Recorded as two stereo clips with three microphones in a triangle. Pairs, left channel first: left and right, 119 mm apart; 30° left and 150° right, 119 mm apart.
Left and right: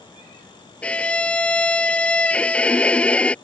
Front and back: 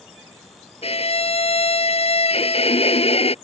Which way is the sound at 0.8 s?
10° left.